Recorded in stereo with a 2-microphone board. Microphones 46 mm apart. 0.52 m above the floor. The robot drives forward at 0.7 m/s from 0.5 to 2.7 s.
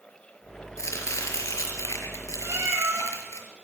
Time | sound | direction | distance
0.8 | chopping | 85° left | 5 m
2.4 | a cat meowing | 75° right (ahead or behind) | 7.5 m